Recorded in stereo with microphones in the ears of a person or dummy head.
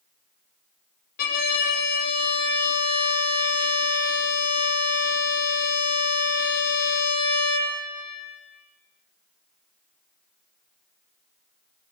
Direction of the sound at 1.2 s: 50° left (ahead or behind).